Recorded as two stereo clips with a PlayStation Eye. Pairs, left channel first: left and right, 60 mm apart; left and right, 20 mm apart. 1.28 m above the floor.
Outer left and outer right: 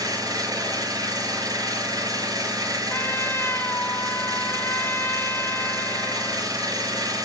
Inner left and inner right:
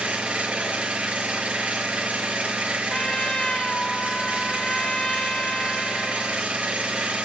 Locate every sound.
0.0 s an engine running: 80° right, 5.5 m
2.9 s a trumpet: 45° left (ahead or behind), 0.9 m